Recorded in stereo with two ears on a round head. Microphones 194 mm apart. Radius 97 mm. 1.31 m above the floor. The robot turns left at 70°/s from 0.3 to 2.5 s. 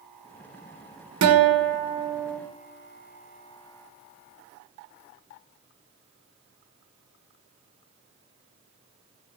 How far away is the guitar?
About 1.2 m.